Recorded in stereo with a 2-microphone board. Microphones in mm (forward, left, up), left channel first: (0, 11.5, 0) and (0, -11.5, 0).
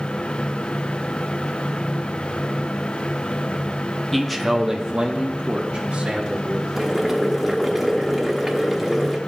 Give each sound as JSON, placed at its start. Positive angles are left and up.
{"t": 4.1, "sound": "a man speaking", "side_deg": 10, "distance_m": 0.6}
{"t": 6.8, "sound": "boiling", "side_deg": -10, "distance_m": 1.0}